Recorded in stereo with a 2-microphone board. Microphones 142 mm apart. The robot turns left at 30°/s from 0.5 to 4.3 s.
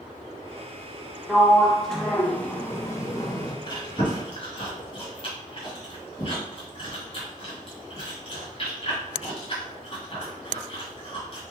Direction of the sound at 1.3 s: 170° right.